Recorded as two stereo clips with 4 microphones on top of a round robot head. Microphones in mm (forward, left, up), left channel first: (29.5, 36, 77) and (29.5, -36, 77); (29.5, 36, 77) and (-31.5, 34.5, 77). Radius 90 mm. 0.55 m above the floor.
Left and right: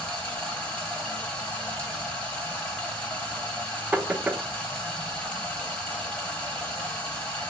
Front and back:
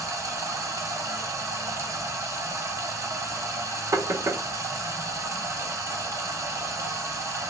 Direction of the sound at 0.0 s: 160° left.